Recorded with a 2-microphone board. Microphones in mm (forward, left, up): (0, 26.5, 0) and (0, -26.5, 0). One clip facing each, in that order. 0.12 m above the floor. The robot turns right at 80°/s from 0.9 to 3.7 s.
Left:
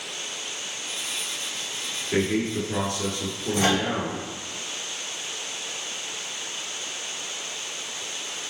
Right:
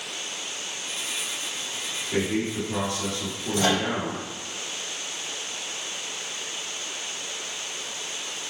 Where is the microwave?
35° left (ahead or behind), 1.3 m; by 3.8 s 40° left (ahead or behind), 1.3 m.